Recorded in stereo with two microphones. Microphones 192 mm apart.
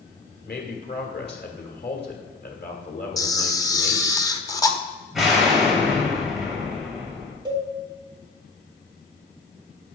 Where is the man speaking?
60° left (ahead or behind), 1.9 m.